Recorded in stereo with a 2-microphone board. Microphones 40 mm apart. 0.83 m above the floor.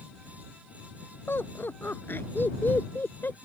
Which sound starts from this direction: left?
Laughter, at 1.3 s.